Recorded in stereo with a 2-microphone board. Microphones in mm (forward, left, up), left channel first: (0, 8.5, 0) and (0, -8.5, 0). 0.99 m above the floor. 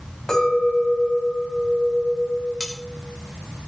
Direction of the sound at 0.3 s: 35° left (ahead or behind).